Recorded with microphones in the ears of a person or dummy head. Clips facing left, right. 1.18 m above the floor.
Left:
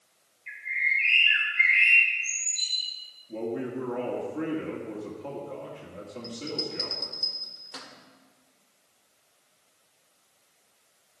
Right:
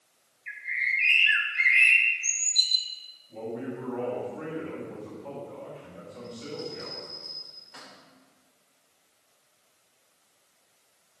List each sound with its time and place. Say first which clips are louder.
0.5 s a bird: left 1 dB; 30° right (ahead or behind), 2 m
3.3 s a man speaking: left 3 dB; 85° left, 2.5 m
6.2 s a bell: left 1 dB; 60° left (ahead or behind), 1.9 m